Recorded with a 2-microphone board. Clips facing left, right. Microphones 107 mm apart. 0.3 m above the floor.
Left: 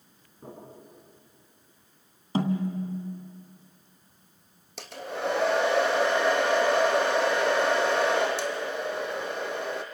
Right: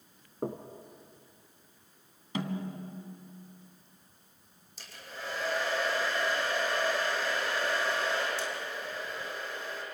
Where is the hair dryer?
65° left (ahead or behind), 2.5 m.